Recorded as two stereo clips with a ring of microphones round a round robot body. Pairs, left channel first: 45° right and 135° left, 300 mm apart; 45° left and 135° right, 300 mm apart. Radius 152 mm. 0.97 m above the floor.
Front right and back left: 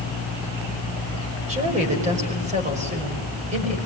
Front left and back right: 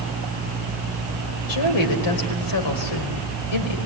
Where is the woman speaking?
65° left, 5 m.